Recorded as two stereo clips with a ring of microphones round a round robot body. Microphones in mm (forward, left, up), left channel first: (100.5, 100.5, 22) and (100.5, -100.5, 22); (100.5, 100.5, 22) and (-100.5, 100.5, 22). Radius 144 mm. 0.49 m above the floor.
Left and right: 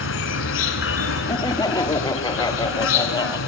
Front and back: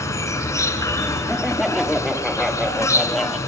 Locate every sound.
0.0 s an insect: 75° left, 1.1 m
1.3 s laughter: 90° left, 0.7 m